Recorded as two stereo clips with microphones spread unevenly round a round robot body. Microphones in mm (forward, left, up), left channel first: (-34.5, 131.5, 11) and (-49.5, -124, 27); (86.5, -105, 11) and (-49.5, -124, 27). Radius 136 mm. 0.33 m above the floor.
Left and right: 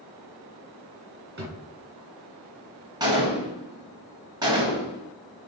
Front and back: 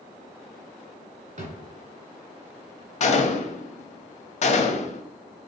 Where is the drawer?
145° right, 2 m.